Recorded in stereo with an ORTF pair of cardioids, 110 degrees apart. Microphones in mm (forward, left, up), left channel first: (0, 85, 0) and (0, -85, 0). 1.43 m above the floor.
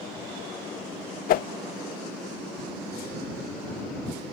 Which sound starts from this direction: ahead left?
A whoosh, at 1.3 s.